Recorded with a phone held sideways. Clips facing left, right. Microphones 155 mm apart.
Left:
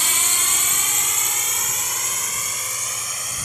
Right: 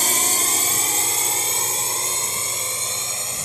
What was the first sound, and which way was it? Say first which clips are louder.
A drone: right 5 dB; 45° right (ahead or behind).